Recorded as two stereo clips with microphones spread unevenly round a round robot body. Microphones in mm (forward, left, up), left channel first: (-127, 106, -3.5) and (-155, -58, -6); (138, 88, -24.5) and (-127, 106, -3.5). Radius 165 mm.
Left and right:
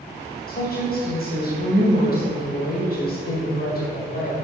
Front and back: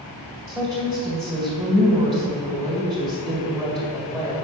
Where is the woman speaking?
95° left, 2 m.